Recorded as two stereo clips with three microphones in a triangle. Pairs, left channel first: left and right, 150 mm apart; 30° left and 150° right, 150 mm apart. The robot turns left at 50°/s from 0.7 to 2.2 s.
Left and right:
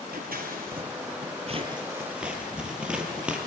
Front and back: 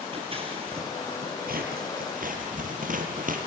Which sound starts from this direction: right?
Scissors, at 0.1 s.